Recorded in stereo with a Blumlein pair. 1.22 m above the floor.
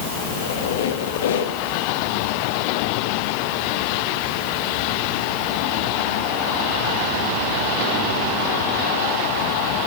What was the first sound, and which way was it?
A squeak, 60° left.